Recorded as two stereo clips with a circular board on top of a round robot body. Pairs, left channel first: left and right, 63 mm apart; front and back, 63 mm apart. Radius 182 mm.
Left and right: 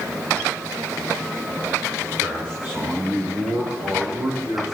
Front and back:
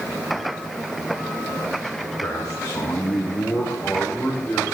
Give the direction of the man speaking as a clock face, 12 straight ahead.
1 o'clock.